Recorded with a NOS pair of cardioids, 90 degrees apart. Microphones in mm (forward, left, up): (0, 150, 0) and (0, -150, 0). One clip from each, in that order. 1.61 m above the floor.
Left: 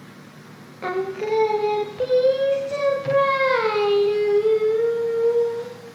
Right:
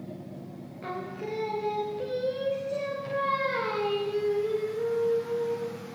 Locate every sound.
0.8 s singing: 50° left, 0.6 m